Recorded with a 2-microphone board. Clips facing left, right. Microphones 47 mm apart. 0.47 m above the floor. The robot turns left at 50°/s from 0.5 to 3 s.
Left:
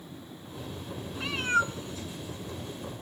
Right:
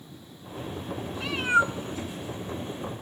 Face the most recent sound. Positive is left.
turn(degrees=-85)